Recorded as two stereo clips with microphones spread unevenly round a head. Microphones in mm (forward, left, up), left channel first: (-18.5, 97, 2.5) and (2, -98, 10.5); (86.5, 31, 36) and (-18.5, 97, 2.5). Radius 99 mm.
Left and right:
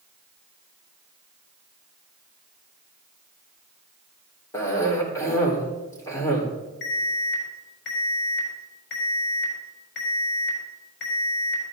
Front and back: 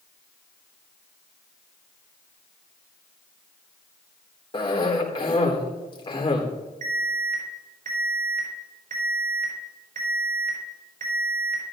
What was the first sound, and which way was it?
A cough, 20° left.